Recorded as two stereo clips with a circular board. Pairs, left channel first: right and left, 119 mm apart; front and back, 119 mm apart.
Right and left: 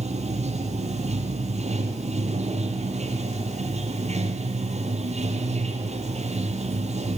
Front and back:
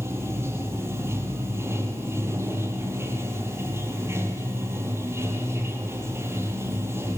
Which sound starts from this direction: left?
Running water, at 0.0 s.